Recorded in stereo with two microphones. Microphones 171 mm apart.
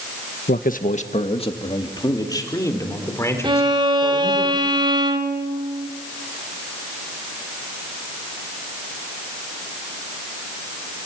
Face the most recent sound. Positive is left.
turn(degrees=-25)  # may be behind; listen again after turning